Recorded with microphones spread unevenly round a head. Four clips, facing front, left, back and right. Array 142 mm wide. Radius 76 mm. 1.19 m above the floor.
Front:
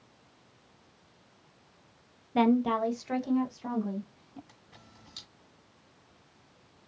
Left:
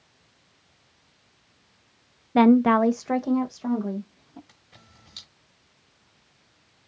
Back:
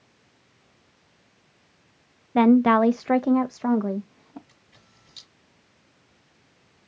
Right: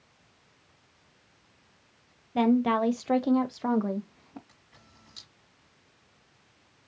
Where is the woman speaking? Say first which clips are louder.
Left 7 dB, back 8 dB; 125° left, 0.7 m; by 4.4 s 155° right, 1.6 m.